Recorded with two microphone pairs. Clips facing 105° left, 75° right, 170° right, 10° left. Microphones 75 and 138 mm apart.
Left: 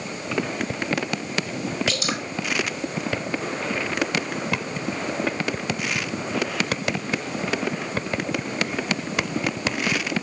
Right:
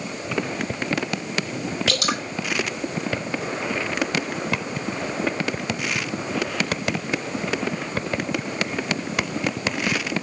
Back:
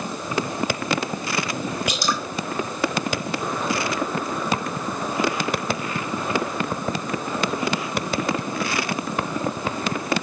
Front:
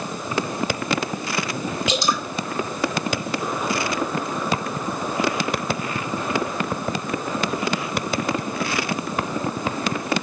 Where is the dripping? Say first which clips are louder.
Right 2 dB, front 5 dB; 55° right, 2.5 m.